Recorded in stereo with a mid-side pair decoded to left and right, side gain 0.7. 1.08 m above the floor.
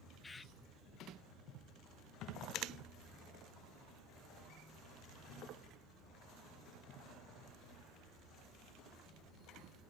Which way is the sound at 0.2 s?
20° left.